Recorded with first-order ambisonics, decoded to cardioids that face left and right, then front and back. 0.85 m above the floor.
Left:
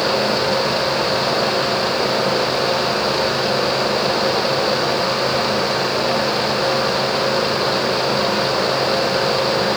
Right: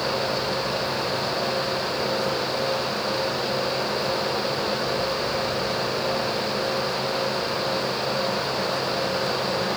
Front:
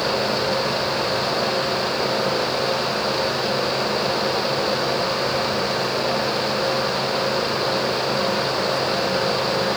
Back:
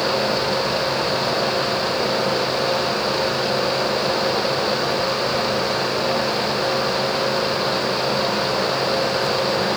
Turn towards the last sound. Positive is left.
No sound to turn to.